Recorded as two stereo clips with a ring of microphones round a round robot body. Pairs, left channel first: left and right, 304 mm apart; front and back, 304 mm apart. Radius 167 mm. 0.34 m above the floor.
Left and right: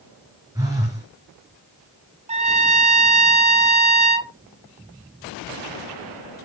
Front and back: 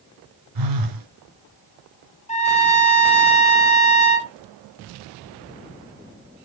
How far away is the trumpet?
About 1.6 m.